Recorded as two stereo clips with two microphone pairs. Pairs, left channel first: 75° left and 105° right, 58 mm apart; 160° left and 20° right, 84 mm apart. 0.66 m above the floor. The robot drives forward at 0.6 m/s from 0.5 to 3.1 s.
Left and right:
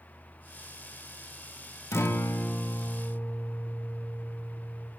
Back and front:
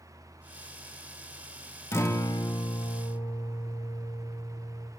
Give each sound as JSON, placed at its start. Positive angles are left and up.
{"t": 1.9, "sound": "a guitar", "azimuth_deg": 105, "distance_m": 0.6}